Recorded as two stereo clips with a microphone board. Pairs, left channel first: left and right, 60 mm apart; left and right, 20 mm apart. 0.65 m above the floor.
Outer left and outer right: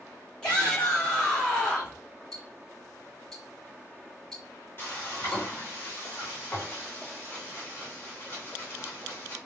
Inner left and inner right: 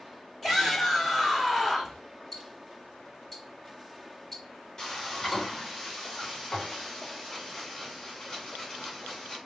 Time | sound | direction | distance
0.4 | a shout | 15° left (ahead or behind) | 2 m
2.3 | ticking | 5° left (ahead or behind) | 1.6 m
4.8 | frying | 35° left (ahead or behind) | 2.5 m